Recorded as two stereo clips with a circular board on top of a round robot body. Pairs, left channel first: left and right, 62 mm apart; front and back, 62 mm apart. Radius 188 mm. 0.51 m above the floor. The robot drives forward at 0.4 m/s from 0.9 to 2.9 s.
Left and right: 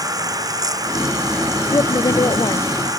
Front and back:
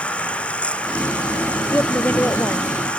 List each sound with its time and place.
0.0 s running water: 70° right
1.7 s a woman speaking: 60° left; by 3.0 s 65° left